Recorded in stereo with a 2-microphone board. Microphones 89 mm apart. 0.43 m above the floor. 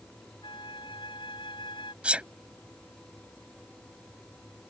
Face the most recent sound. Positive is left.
turn(degrees=-15)  # may be behind; listen again after turning